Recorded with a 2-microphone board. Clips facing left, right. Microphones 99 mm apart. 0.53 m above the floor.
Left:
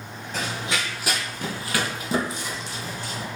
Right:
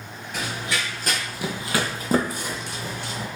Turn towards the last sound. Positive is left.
turn(degrees=-65)  # may be behind; listen again after turning